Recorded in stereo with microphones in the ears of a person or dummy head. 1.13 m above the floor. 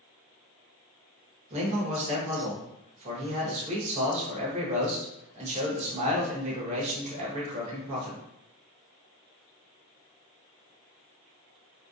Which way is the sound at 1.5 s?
35° right (ahead or behind).